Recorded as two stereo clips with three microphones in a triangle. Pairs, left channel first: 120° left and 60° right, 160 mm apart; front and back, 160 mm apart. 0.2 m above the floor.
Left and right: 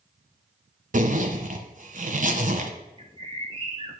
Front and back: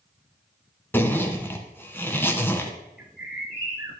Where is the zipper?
75° right, 1.2 m.